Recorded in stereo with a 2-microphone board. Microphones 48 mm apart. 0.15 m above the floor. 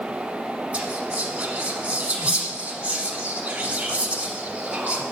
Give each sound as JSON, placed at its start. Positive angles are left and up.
{"t": 0.7, "sound": "whispering", "side_deg": -25, "distance_m": 1.2}